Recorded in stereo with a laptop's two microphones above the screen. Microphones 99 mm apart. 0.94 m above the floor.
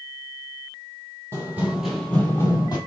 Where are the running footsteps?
25° right (ahead or behind), 1.3 m; by 2.8 s 40° left (ahead or behind), 1.4 m.